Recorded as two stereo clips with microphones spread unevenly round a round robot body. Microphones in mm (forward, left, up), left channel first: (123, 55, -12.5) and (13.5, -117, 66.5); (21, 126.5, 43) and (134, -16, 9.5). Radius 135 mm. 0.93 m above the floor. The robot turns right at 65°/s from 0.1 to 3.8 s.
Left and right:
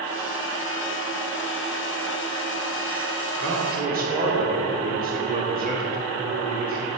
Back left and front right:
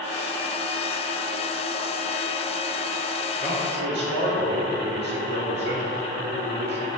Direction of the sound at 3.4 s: 105° right.